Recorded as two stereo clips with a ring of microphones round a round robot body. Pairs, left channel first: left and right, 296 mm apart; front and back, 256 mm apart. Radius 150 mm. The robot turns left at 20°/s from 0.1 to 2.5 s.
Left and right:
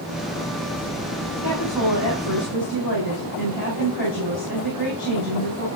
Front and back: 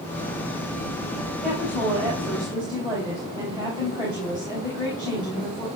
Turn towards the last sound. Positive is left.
turn(degrees=110)